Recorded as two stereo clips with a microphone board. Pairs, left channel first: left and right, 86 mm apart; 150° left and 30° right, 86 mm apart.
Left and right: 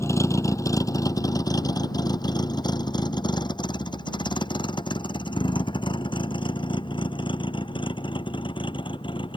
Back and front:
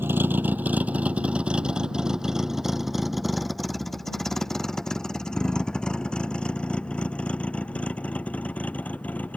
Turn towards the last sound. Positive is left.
turn(degrees=80)